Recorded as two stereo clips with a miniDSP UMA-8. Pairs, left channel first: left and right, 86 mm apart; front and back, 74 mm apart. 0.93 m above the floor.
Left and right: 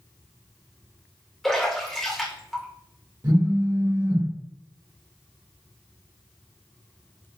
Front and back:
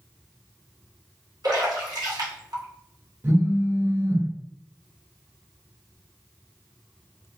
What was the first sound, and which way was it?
A splash, 175° left.